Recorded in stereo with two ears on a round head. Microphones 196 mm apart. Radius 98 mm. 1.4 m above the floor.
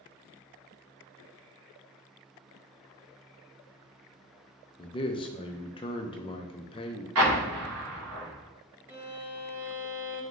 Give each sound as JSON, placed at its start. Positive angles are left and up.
{"t": 4.8, "sound": "a man speaking", "side_deg": 25, "distance_m": 0.5}
{"t": 7.2, "sound": "an explosion", "side_deg": -80, "distance_m": 1.5}
{"t": 8.9, "sound": "a violin", "side_deg": -10, "distance_m": 0.6}